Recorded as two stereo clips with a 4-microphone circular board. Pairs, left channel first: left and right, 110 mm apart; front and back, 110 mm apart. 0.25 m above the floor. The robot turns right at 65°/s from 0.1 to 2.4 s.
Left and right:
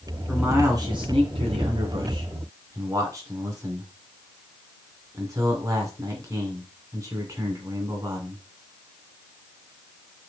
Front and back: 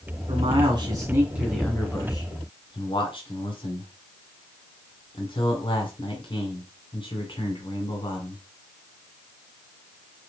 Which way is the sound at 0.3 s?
170° right.